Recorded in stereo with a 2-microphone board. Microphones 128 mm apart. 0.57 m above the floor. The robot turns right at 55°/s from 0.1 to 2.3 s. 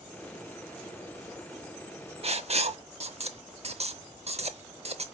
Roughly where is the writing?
Right.